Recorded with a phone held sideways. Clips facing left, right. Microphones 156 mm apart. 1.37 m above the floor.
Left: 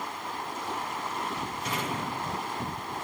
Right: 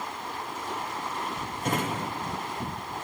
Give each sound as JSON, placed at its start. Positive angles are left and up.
{"t": 1.6, "sound": "a drawer", "side_deg": -50, "distance_m": 1.0}